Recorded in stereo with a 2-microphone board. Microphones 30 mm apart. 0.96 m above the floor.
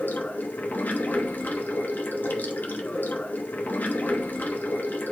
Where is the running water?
80° left, 1.0 m.